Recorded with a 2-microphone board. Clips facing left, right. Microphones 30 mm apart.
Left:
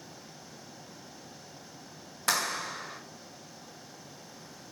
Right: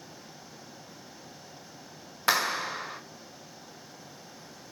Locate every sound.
2.3 s a clap: 20° right (ahead or behind), 0.8 m